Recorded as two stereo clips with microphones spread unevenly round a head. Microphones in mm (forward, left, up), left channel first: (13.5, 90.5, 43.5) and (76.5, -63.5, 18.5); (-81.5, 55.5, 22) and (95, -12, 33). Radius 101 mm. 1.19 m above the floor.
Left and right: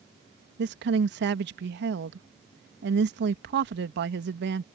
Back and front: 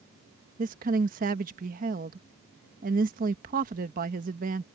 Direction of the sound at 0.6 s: 70° right.